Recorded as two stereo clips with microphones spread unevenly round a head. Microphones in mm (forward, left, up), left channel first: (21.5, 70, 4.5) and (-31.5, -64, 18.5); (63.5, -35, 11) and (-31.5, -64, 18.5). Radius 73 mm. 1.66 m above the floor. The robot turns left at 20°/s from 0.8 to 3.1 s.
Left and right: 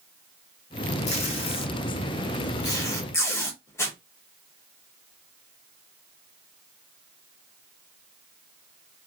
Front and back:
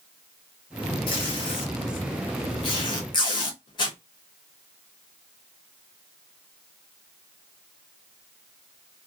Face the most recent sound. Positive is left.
turn(degrees=-5)